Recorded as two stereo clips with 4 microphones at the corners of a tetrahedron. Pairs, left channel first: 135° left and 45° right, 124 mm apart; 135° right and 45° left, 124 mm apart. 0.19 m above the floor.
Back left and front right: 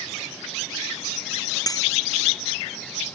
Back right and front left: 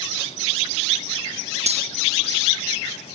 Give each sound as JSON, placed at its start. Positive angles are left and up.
{"t": 1.7, "sound": "cutlery clinking", "azimuth_deg": 75}